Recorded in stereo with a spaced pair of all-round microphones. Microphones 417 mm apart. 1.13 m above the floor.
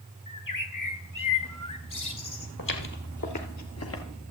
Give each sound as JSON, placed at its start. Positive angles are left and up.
{"t": 0.3, "sound": "a bird", "side_deg": 50, "distance_m": 1.6}
{"t": 2.6, "sound": "footsteps", "side_deg": 50, "distance_m": 1.7}